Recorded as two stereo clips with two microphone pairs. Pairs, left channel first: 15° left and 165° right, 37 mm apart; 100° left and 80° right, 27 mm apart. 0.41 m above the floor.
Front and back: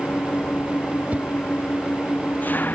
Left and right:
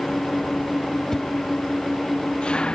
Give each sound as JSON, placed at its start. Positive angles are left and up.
{"t": 0.0, "sound": "an engine running", "azimuth_deg": 45}
{"t": 1.1, "sound": "a whoosh", "azimuth_deg": 165}